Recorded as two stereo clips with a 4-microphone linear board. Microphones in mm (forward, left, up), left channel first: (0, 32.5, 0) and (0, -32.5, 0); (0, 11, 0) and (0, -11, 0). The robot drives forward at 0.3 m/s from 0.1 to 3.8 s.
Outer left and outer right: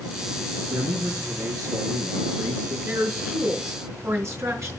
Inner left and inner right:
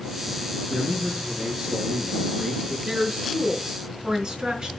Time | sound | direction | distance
0.7 | a man speaking | 70° right (ahead or behind) | 3.5 m
2.9 | a woman speaking | 50° right (ahead or behind) | 3 m